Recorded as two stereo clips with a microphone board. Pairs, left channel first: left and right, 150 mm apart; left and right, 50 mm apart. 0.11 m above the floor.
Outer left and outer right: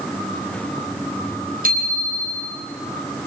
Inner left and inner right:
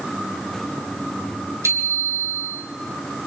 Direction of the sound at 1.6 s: 70° right (ahead or behind).